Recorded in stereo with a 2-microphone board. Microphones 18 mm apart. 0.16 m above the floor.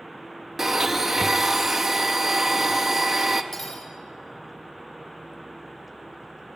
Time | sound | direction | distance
0.6 | a blender | 25° right (ahead or behind) | 1.0 m
3.5 | cutlery clinking | 20° left (ahead or behind) | 4 m